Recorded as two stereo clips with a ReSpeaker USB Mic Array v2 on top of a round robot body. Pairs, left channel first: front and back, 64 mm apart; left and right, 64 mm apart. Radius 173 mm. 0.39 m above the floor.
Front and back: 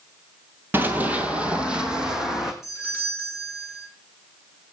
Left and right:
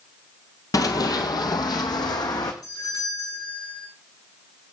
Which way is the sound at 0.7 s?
120° left.